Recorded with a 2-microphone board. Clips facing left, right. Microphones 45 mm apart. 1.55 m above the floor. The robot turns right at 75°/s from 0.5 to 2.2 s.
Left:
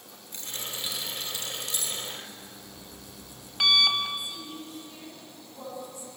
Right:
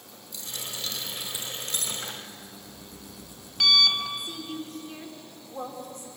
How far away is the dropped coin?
About 4 m.